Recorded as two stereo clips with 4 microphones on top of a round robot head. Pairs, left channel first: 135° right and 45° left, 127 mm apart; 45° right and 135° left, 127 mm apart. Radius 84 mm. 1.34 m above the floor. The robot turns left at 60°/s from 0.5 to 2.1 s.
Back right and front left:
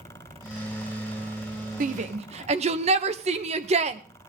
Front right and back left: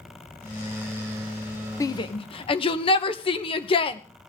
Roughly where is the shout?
Ahead left.